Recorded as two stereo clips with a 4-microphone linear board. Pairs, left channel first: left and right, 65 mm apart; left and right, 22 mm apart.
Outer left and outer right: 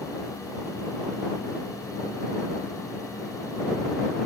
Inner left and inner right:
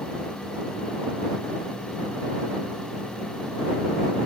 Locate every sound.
Only background noise.